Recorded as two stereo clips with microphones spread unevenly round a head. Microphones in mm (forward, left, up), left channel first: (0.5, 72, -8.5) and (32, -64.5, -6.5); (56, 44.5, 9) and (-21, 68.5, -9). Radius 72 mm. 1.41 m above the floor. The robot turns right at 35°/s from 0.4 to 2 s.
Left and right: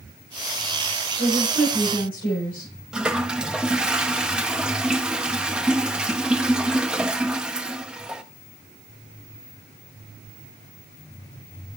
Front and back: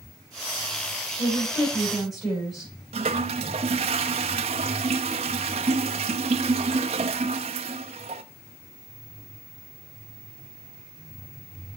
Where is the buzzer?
I don't hear a buzzer.